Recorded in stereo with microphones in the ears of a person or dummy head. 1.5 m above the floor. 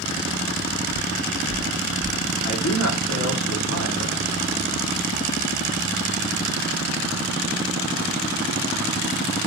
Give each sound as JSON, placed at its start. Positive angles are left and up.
{"t": 0.9, "sound": "footsteps", "side_deg": 15, "distance_m": 1.6}
{"t": 2.4, "sound": "a man speaking", "side_deg": 70, "distance_m": 1.0}